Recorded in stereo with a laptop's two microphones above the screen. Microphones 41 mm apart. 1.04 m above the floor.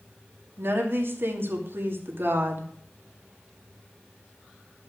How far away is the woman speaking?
About 2.5 m.